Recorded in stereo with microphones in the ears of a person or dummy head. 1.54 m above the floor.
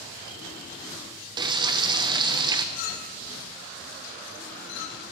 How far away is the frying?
About 0.8 m.